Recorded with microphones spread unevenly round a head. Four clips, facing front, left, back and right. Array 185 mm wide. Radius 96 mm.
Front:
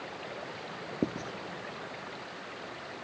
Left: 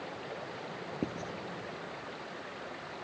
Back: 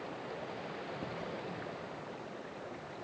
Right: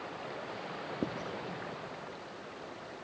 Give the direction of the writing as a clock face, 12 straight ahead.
12 o'clock.